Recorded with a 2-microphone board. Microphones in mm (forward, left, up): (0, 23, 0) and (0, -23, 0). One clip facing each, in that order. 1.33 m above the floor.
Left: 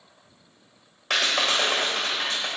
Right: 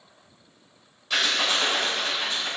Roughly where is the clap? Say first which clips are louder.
Left 1 dB; left.